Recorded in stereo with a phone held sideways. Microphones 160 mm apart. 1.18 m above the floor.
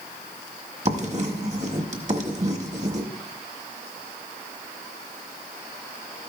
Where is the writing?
45° right (ahead or behind), 1.3 m.